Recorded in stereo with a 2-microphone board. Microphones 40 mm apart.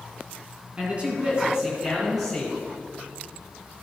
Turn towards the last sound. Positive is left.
turn(degrees=5)  # may be behind; listen again after turning